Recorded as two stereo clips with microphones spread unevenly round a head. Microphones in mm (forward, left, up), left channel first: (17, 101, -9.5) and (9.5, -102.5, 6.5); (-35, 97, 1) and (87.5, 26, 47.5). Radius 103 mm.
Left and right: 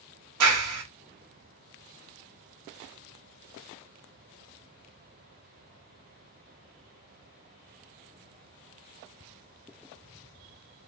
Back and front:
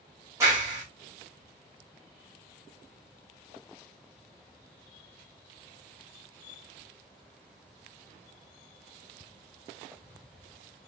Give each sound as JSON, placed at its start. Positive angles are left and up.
{"t": 0.4, "sound": "a clap", "azimuth_deg": -105, "distance_m": 0.9}